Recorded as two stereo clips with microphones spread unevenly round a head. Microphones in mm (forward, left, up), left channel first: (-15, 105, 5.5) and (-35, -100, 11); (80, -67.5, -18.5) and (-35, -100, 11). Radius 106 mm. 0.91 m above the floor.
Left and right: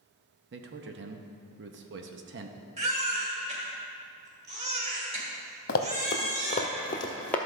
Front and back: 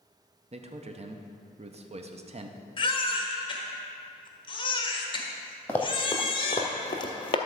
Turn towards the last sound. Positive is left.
turn(degrees=5)